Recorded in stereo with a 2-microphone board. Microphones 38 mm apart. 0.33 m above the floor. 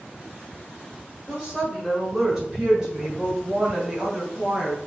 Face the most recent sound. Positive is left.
turn(degrees=-15)  # may be behind; listen again after turning